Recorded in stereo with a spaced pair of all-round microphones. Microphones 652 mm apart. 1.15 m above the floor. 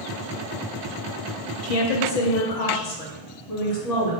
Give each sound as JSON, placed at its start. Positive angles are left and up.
{"t": 1.6, "sound": "a woman speaking", "side_deg": 55, "distance_m": 0.7}